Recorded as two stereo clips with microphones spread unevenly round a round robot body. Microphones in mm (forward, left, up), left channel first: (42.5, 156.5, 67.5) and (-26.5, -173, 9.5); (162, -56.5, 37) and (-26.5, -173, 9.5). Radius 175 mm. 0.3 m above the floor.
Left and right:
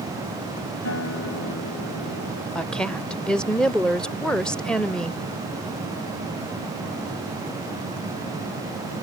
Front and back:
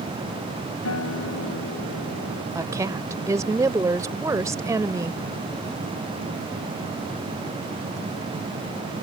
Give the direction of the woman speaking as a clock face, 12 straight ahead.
6 o'clock.